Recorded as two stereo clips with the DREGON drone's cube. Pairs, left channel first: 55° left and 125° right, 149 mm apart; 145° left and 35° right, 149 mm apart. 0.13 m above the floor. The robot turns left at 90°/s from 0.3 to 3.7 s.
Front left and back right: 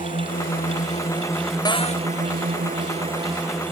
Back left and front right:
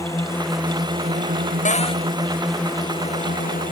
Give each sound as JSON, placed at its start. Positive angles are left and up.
{"t": 0.0, "sound": "a drone", "azimuth_deg": 75}
{"t": 1.6, "sound": "a cupboard door", "azimuth_deg": 120}